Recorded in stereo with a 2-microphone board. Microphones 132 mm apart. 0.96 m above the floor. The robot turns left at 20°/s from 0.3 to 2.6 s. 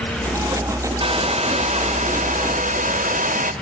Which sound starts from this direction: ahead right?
A hair dryer, at 1.0 s.